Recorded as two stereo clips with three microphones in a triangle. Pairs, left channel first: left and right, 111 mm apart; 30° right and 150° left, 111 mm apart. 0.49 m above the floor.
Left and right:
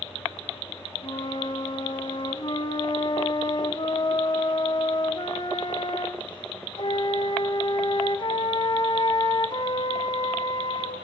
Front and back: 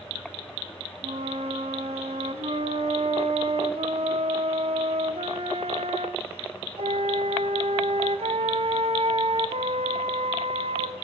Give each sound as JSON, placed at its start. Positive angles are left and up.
{"t": 1.0, "sound": "a flute", "azimuth_deg": 130, "distance_m": 1.6}